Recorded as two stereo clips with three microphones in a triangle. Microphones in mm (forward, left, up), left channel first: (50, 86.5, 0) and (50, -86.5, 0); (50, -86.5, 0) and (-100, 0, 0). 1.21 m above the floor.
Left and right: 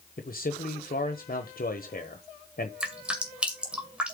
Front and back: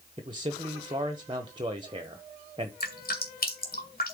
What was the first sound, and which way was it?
A man speaking, 95° left.